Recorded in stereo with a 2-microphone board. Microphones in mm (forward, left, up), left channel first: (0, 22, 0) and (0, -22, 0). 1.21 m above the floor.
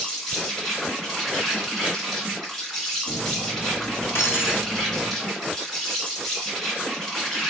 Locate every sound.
0.0 s an insect: 5° left (ahead or behind), 1.9 m
3.1 s cutlery clinking: 70° left (ahead or behind), 1.1 m